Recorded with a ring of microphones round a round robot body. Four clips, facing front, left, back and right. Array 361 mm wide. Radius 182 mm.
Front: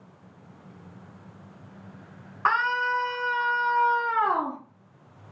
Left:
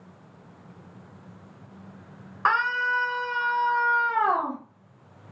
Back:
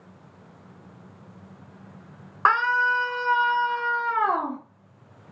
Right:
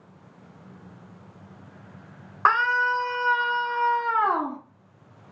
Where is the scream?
140° right, 1.5 m; by 4.6 s 55° right, 1.2 m.